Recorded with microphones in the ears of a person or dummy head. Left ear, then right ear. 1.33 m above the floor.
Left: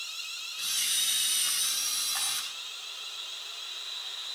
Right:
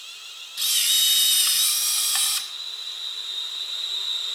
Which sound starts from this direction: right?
A camera shutter, at 0.6 s.